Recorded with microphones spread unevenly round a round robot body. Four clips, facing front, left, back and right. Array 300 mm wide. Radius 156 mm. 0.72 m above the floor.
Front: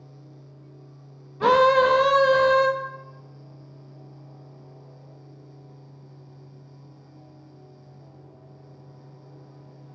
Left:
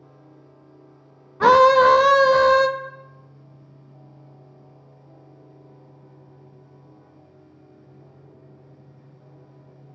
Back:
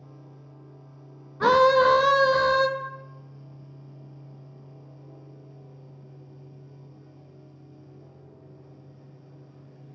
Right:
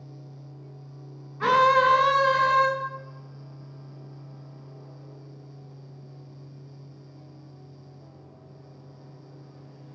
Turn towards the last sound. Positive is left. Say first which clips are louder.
# left 7 dB, front 1 dB
turn(degrees=105)